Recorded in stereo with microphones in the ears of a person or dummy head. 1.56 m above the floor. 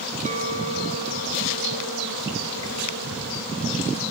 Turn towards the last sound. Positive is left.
turn(degrees=-45)  # may be behind; listen again after turning